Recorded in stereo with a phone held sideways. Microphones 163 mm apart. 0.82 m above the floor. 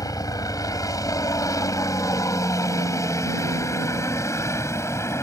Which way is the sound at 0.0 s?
20° left (ahead or behind).